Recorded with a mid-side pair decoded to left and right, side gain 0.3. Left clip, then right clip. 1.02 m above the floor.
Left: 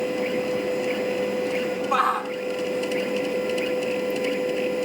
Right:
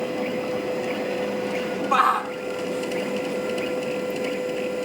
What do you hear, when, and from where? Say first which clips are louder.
0.0 s a machine running: left 2 dB; 25° left
1.9 s a shout: right 3 dB; 30° right